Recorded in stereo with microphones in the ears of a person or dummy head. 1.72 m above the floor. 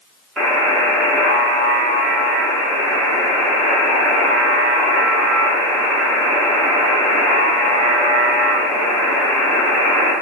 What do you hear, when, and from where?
0.4 s a buzzer: 5° left (ahead or behind), 0.8 m